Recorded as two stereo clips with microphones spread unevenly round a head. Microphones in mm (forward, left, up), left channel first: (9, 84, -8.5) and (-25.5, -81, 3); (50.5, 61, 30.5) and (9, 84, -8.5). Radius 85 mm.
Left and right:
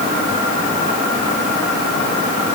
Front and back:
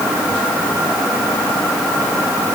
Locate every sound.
Only background noise.